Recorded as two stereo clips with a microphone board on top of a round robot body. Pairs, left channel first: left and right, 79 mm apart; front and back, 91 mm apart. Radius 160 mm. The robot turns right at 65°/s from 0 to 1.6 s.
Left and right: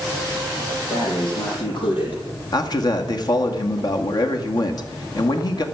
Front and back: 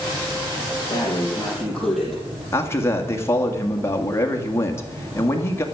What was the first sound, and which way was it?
Breathing, 40° left.